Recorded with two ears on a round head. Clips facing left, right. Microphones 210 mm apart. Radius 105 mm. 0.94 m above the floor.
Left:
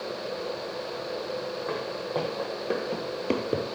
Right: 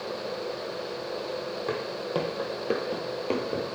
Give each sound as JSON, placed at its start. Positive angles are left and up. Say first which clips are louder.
{"t": 1.7, "sound": "footsteps", "louder": "right 2 dB", "side_deg": -45, "distance_m": 2.5}